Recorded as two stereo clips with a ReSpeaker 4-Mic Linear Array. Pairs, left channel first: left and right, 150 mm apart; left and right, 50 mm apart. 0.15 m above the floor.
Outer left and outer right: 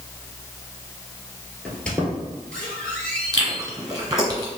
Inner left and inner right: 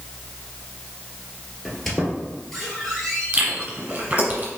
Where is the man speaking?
No man speaking in this recording.